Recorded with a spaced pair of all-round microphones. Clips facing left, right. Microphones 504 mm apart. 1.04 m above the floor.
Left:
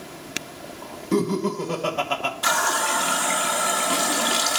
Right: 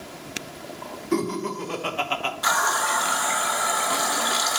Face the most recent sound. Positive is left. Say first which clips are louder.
# left 2 dB
turn(degrees=50)  # may be behind; listen again after turning